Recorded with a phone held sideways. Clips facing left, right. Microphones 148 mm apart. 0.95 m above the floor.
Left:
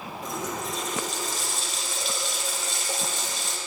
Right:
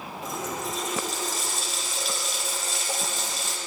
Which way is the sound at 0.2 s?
Centre (ahead or behind).